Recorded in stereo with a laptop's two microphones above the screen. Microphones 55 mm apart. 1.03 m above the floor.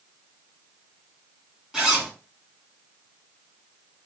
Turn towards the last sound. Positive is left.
turn(degrees=-15)  # may be behind; listen again after turning